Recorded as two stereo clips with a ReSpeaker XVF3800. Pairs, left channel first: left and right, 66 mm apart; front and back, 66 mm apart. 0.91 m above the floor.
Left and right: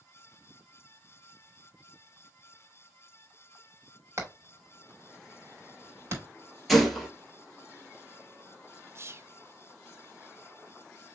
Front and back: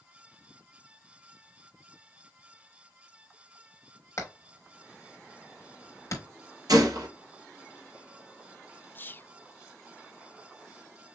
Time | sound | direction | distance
4.2 | hammering | 45° right | 3 m
6.7 | a gunshot | straight behind | 2.5 m
8.9 | whispering | 50° right | 0.5 m